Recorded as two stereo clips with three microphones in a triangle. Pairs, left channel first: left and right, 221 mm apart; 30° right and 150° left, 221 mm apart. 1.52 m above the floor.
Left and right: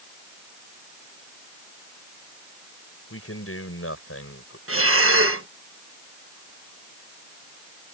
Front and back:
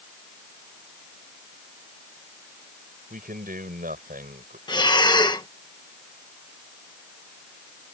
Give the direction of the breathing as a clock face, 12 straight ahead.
3 o'clock.